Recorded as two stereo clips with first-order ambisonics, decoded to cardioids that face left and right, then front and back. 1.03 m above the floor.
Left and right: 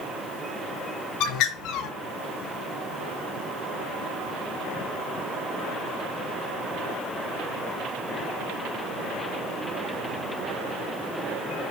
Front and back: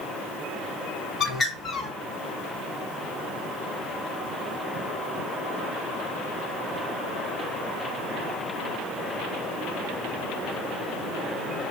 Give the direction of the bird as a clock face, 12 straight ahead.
9 o'clock.